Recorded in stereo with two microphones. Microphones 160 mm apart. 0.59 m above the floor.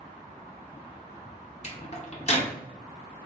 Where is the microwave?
40° left (ahead or behind), 0.7 m.